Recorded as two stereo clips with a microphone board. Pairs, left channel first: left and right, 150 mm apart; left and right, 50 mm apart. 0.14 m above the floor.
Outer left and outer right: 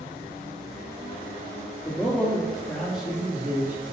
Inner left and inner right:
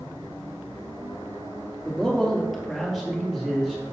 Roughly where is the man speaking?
Centre.